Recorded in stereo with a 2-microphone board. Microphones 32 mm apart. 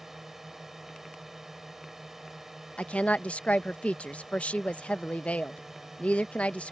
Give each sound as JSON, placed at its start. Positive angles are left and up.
{"t": 0.0, "sound": "a drone", "side_deg": -10}
{"t": 2.8, "sound": "a woman speaking", "side_deg": 45}